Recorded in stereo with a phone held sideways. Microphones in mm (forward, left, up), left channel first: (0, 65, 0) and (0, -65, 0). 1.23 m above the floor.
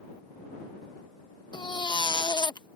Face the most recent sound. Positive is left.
turn(degrees=35)  # may be behind; listen again after turning